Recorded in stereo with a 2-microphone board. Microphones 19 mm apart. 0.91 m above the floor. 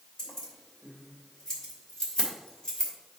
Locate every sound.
0.2 s keys jangling: 20° left (ahead or behind), 2.5 m